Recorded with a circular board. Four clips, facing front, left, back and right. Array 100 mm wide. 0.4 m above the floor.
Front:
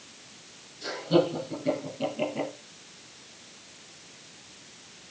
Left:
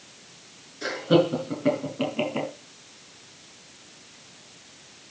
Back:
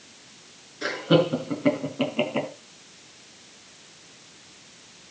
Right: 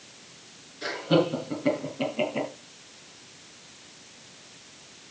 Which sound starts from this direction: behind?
Laughter, at 0.8 s.